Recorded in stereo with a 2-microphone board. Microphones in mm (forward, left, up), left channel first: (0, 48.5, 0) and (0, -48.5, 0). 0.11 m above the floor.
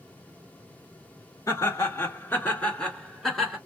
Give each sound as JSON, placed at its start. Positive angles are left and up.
{"t": 1.5, "sound": "laughter", "side_deg": 35, "distance_m": 1.9}